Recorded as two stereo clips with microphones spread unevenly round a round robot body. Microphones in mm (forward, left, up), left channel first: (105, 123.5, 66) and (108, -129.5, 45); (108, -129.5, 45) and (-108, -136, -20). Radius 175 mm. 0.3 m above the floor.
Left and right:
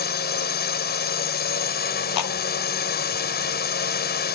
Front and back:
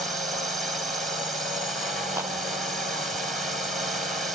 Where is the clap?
100° left.